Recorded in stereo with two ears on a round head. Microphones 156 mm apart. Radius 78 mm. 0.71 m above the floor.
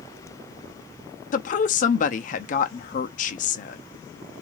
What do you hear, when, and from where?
1.3 s a woman speaking: 45° left (ahead or behind), 0.7 m